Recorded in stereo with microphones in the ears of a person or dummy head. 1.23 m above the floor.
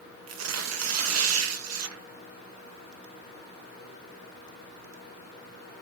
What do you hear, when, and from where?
0.3 s tearing paper: 80° right, 1.1 m